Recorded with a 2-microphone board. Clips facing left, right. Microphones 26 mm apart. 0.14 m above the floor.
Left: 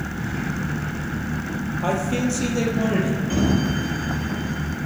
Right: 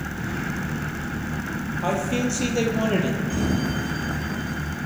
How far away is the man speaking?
About 3 m.